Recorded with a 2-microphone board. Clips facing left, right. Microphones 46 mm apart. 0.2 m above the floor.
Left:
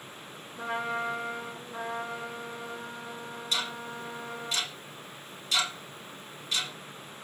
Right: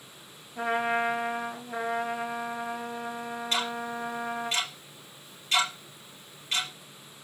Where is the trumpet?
70° right (ahead or behind), 3.5 m.